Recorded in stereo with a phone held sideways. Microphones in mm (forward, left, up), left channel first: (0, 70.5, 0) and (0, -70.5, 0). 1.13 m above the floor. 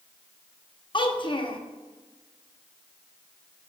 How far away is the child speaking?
About 0.8 m.